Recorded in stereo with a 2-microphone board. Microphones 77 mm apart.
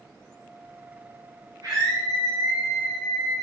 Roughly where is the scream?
Right.